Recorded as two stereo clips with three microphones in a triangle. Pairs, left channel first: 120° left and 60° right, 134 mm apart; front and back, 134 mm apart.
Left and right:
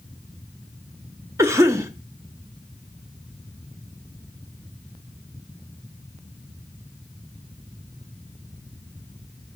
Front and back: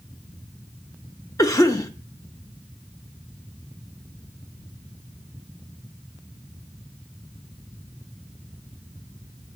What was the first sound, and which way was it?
A cough, 25° right.